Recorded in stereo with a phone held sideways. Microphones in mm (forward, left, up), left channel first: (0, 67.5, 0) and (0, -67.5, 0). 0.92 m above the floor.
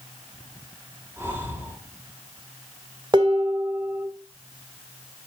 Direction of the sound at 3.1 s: 40° right (ahead or behind).